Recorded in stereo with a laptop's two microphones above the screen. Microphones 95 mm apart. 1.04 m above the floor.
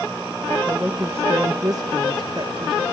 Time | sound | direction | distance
0.7 | a woman speaking | 15° right (ahead or behind) | 1.3 m